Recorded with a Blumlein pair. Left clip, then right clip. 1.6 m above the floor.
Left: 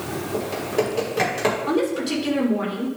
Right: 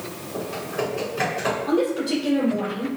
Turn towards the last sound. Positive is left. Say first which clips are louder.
# even
turn(degrees=25)